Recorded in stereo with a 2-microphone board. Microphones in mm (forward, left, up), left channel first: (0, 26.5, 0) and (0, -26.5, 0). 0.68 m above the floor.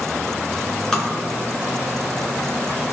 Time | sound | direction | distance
0.9 | tapping | 15° left (ahead or behind) | 2 m